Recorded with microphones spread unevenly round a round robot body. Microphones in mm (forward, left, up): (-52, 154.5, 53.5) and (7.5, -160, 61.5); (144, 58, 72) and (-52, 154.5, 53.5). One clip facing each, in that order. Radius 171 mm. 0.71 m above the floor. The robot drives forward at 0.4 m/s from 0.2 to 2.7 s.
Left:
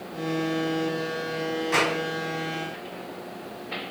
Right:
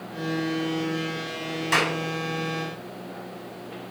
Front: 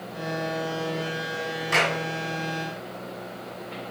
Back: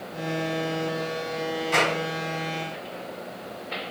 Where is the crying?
No crying in this recording.